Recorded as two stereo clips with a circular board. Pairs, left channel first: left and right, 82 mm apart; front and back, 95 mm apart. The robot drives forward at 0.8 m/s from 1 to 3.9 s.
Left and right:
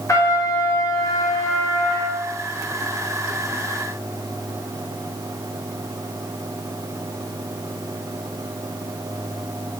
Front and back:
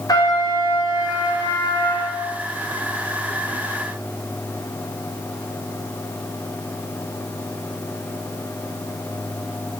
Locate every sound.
0.1 s a trumpet: 45° left, 4.5 m; by 2.2 s 50° left, 4 m